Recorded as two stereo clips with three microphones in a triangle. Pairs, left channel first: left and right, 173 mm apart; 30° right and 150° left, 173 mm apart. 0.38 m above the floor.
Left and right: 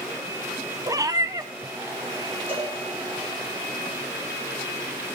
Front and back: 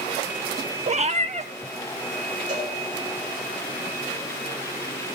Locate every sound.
0.9 s a cat meowing: 155° right, 0.5 m
2.5 s a cowbell: 165° right, 3.5 m